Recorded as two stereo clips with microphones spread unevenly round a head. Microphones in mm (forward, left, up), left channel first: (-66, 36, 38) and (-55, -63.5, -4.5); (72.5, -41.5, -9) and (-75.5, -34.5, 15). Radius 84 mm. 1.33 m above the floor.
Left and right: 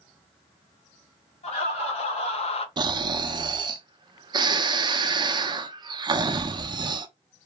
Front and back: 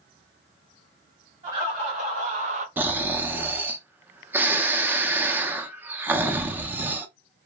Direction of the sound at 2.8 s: 100° right.